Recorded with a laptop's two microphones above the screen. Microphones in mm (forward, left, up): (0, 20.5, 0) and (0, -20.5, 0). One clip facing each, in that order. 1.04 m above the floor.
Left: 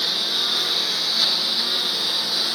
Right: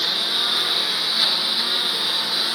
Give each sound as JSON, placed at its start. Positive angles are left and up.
{"t": 0.0, "sound": "a lawn mower", "side_deg": -10}